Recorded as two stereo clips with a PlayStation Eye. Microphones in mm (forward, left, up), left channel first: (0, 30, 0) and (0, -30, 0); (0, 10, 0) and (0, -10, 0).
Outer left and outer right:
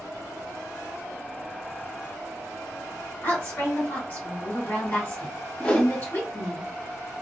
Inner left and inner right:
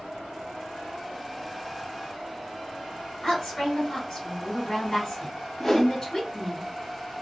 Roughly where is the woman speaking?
Left.